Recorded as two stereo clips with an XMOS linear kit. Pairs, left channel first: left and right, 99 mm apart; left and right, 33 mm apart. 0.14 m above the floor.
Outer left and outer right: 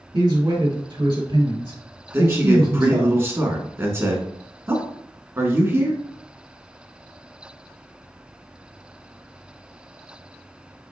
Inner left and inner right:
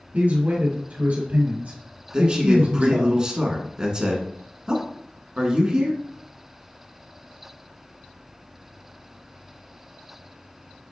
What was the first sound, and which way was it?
A man speaking, 50° right (ahead or behind).